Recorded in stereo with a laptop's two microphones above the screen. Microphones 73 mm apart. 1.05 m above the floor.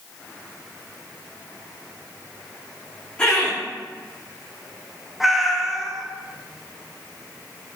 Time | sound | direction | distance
3.2 | laughter | 15° left (ahead or behind) | 3 m
5.2 | a cat meowing | 5° right (ahead or behind) | 0.6 m